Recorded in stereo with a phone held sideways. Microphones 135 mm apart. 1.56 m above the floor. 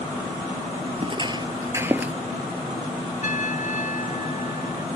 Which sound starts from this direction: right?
Footsteps, at 1.0 s.